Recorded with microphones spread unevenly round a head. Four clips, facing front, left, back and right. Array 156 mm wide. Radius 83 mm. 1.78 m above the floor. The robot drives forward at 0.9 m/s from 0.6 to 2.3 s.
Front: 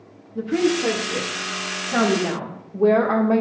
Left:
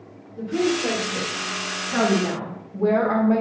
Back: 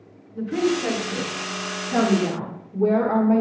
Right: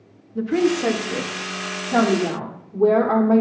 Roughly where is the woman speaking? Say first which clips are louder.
Right 3 dB, front 2 dB; ahead right.